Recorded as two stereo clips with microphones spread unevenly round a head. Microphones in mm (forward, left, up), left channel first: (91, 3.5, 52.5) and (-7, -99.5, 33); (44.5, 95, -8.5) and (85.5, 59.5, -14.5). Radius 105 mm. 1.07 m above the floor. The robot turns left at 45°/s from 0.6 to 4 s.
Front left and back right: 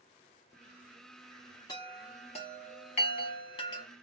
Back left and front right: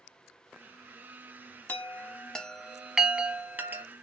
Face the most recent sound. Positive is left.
turn(degrees=0)